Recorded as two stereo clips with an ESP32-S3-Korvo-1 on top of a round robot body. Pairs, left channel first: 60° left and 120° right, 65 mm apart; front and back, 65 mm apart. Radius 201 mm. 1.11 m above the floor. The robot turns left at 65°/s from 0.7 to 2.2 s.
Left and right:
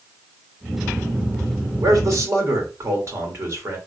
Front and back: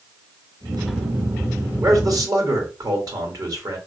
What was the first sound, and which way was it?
A man speaking, 140° right.